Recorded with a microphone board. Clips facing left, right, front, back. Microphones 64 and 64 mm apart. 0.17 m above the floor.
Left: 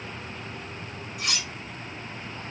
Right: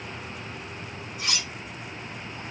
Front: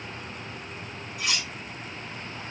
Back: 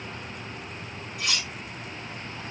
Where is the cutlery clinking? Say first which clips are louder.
Even, even; 85° left, 3 m.